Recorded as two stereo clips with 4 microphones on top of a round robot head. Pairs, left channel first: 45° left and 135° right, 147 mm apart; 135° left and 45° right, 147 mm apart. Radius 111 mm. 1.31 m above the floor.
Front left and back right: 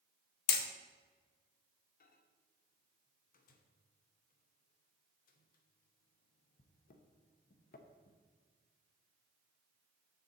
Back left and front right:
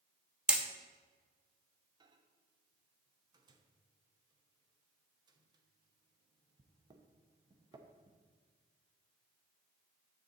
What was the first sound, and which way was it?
Hammering, 40° left.